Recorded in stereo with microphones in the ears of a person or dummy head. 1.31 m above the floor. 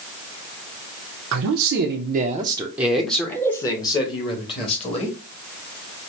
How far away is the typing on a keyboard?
I don't hear typing on a keyboard.